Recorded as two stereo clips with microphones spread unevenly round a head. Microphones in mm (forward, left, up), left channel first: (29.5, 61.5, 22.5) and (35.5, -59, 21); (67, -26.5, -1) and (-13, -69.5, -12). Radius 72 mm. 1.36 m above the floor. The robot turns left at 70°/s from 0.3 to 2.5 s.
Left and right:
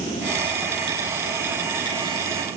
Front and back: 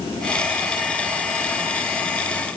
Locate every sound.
Only background noise.